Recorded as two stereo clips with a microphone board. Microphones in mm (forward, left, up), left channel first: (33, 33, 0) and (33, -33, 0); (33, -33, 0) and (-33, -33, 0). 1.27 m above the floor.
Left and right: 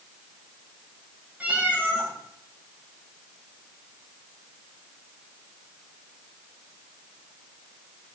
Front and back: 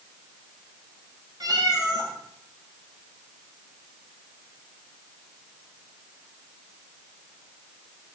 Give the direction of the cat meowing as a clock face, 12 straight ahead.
5 o'clock.